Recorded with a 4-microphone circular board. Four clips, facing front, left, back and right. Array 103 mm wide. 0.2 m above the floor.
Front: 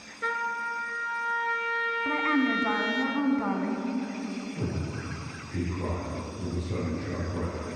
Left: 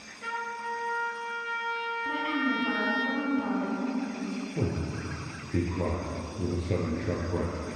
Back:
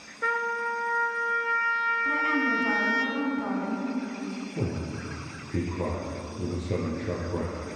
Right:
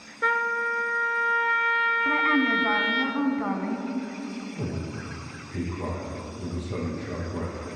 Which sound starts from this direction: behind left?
A man speaking, at 4.6 s.